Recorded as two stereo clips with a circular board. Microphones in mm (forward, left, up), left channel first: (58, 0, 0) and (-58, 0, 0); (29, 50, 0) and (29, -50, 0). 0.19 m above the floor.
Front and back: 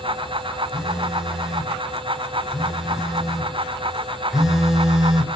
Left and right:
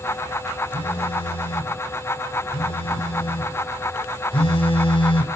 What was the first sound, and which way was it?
A phone buzzing, 95° left.